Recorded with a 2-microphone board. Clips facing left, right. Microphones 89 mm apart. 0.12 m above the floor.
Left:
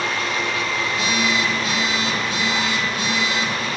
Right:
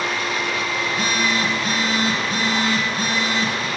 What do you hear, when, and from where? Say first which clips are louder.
0.8 s a phone buzzing: right 1 dB; 45° right (ahead or behind), 4.5 m